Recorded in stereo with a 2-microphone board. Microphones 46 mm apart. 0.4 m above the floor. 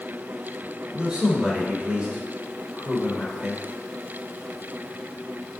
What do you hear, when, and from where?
0.9 s a man speaking: 20° right (ahead or behind), 1.1 m